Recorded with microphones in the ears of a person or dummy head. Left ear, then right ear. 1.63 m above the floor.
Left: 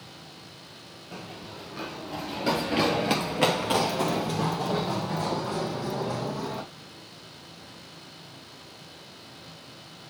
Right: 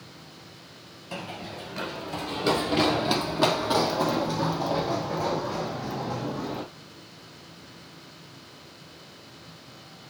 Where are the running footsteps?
20° right (ahead or behind), 1.8 m; by 6.6 s 60° left (ahead or behind), 3.5 m.